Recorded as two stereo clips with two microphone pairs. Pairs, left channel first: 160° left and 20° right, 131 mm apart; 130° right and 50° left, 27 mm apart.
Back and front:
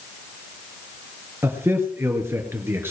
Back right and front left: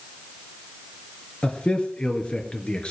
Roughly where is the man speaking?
Right.